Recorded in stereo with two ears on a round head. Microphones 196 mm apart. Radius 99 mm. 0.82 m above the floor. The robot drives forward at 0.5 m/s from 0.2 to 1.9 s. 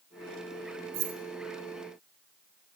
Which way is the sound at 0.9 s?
65° right (ahead or behind).